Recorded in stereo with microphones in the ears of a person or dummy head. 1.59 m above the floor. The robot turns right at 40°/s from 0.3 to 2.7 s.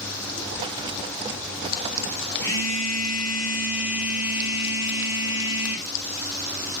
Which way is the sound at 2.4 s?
15° left (ahead or behind).